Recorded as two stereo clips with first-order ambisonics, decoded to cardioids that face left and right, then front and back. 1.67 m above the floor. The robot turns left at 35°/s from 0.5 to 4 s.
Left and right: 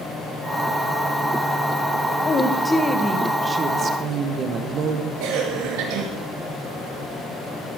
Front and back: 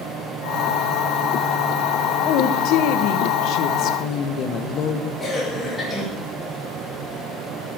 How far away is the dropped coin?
I don't hear a dropped coin.